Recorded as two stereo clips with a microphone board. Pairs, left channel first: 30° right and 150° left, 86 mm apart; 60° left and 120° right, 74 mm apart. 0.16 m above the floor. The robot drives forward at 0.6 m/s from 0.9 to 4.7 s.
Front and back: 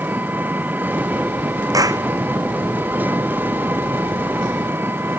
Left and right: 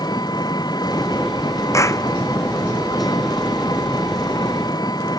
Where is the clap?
105° left.